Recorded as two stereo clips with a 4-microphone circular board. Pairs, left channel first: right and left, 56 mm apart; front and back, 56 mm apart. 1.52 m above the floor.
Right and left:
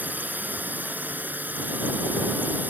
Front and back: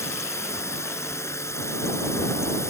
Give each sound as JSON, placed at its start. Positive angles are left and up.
{"t": 0.0, "sound": "a drone", "azimuth_deg": 30}